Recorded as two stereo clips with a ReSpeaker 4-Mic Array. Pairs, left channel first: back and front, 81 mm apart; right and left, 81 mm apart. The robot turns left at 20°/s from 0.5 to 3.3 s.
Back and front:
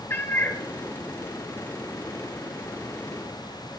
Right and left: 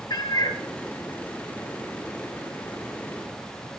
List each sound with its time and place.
0.1 s a cat meowing: 120° right, 1.3 m